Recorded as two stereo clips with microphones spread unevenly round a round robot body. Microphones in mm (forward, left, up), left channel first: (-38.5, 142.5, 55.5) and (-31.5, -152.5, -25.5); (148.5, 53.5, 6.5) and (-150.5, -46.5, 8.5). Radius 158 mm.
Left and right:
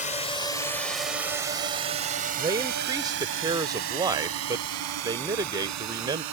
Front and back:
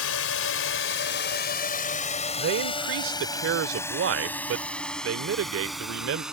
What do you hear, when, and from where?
0.0 s a drone: 15° left; by 6.3 s 75° right
2.4 s a man speaking: 140° right